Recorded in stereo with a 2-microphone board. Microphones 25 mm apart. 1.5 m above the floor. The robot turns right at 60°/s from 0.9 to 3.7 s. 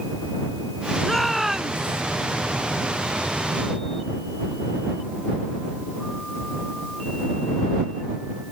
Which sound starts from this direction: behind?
A shout, at 1.0 s.